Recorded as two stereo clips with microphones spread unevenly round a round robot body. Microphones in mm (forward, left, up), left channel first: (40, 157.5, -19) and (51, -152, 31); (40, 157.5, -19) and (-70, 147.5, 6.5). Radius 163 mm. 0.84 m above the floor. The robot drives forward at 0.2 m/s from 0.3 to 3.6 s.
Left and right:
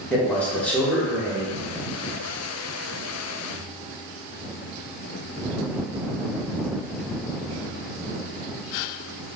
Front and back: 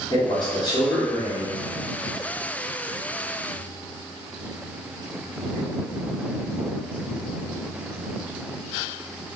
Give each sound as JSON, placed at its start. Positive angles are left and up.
{"t": 0.1, "sound": "a man speaking", "azimuth_deg": 15, "distance_m": 1.0}